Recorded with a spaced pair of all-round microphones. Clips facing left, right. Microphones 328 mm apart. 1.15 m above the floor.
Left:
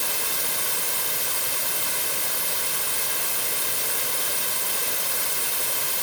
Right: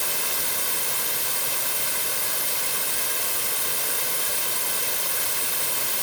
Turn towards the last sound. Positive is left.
No sound to turn to.